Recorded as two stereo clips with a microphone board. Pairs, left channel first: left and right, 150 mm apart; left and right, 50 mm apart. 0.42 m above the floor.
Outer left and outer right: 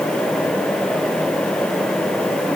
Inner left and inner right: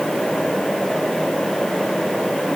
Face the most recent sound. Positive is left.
No sound to turn to.